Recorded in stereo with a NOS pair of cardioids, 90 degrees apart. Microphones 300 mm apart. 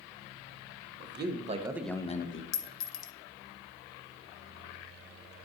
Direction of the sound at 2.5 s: 60° left.